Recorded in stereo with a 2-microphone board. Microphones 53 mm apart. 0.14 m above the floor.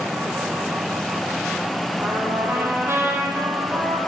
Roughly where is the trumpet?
Right.